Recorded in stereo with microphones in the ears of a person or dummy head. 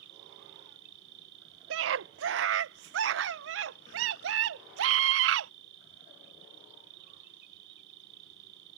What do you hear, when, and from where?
0.0 s an insect: 70° right (ahead or behind)
1.7 s a scream: 75° right (ahead or behind)